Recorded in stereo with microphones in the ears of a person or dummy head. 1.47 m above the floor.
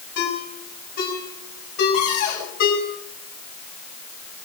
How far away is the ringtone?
About 5.5 m.